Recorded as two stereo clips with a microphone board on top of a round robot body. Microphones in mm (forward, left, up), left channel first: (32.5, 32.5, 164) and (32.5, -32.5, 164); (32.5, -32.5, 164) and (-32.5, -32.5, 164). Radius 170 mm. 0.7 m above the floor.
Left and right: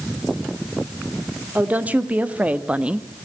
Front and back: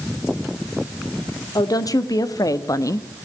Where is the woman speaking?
20° right, 2.5 m; by 3.1 s 15° right, 1.0 m.